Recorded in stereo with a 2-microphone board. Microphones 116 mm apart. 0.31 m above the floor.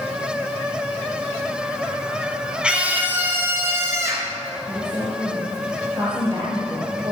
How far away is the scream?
About 3.5 m.